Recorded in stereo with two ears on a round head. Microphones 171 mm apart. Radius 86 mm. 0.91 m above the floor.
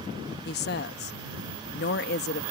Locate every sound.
0.5 s a woman speaking: 55° left (ahead or behind)